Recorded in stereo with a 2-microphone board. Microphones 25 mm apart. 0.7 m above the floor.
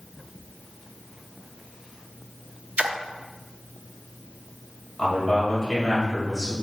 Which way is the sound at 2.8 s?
60° right (ahead or behind).